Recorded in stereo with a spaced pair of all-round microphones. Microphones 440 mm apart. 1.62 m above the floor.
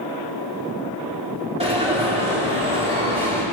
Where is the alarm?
15° right (ahead or behind), 4 m.